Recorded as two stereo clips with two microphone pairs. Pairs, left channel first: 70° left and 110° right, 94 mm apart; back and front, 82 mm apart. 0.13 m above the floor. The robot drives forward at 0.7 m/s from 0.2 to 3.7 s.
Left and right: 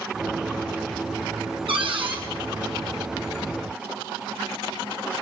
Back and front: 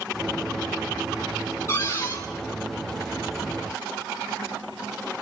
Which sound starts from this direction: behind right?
A cupboard door, at 1.7 s.